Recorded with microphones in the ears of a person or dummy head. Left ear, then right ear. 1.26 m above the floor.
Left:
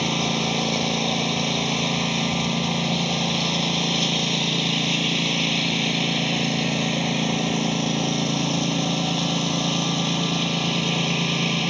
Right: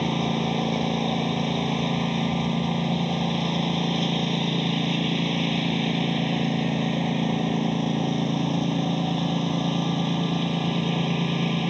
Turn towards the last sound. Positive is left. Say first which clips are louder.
# left 3 dB
turn(degrees=50)  # may be behind; listen again after turning